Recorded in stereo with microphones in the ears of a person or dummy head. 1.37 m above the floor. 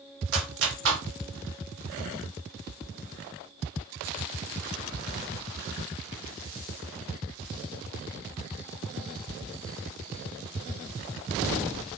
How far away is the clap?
About 1.1 m.